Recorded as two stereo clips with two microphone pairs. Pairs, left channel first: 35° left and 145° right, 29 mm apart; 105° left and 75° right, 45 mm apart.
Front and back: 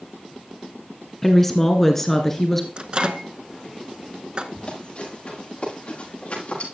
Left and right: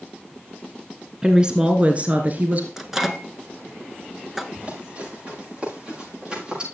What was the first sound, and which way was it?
A woman speaking, 35° right.